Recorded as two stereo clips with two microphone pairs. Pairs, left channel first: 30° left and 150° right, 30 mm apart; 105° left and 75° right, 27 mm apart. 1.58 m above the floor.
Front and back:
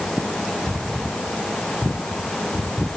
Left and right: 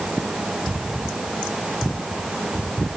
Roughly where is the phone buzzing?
No phone buzzing in this recording.